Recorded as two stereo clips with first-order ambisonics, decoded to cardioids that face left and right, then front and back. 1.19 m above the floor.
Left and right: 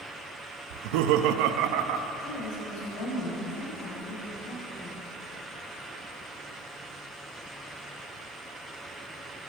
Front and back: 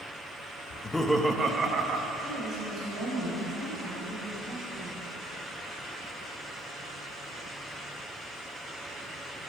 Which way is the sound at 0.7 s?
75° right.